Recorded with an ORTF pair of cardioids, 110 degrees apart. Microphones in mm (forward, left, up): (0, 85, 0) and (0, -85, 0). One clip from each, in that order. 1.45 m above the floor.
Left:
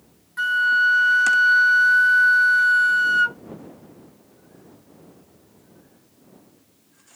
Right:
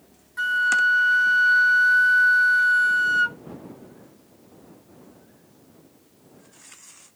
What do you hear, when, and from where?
0.4 s a flute: 10° left